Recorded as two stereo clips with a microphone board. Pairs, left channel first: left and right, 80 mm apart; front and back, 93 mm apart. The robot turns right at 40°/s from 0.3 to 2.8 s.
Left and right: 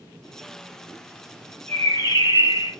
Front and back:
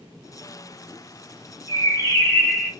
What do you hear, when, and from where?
1.7 s a bird: 35° left, 4 m; by 2.7 s 75° left, 4 m